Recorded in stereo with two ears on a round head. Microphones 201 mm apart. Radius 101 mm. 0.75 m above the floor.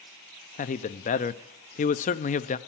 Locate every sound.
0.6 s a man speaking: 35° left (ahead or behind), 0.5 m